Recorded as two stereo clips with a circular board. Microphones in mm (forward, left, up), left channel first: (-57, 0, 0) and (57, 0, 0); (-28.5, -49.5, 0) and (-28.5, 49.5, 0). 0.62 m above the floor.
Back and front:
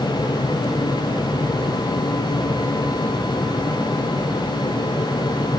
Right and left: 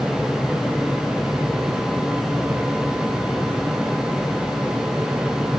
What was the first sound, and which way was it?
Only background noise.